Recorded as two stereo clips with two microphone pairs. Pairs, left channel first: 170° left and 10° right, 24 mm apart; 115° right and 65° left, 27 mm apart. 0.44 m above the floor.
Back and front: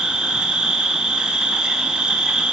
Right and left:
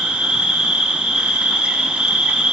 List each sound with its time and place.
0.0 s an insect: 30° left, 0.9 m